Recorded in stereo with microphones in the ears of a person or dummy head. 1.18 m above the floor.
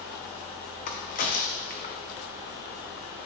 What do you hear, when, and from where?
0.9 s a crack: 45° left (ahead or behind), 0.9 m